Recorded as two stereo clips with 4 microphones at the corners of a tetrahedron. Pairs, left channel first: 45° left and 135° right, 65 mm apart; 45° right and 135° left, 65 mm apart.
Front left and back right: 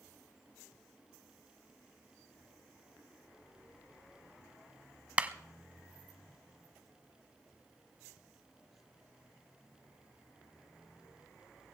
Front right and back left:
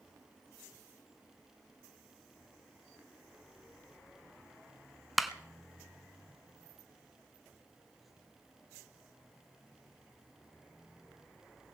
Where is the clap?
135° right, 0.8 m.